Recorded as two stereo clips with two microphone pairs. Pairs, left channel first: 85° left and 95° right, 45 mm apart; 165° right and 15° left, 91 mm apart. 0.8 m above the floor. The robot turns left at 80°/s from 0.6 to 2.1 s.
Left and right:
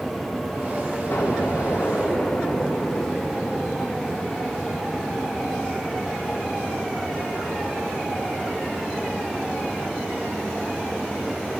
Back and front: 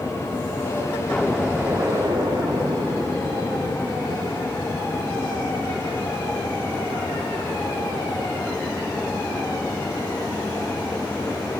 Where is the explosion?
120° left, 1.1 m; by 4.1 s 45° left, 1.1 m.